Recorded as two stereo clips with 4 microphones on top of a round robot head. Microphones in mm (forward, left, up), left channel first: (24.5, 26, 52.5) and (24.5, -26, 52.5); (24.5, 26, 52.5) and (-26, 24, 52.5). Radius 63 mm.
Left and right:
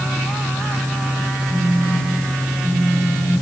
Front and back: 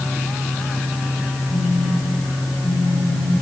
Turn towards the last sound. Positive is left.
turn(degrees=-10)